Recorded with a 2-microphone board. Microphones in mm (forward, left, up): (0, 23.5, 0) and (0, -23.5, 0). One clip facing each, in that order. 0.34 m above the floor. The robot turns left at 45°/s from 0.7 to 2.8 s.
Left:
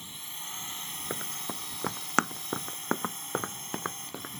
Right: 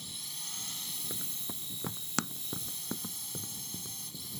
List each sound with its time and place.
0.0 s a drone: 145° left; by 4.4 s 50° left
1.1 s running footsteps: 45° left (ahead or behind); by 4.3 s 85° left